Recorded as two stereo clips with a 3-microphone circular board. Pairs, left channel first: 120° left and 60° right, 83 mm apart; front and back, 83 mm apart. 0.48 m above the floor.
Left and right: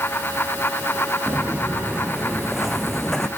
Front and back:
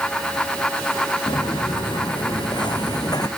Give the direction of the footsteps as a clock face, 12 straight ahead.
11 o'clock.